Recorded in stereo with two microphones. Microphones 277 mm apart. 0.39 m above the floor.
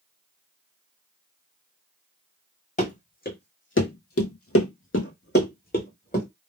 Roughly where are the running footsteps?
Left.